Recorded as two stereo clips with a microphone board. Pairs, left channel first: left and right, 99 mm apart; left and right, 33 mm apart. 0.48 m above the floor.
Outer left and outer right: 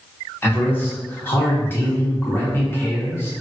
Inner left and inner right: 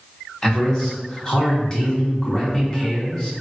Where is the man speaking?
25° left (ahead or behind), 0.8 m.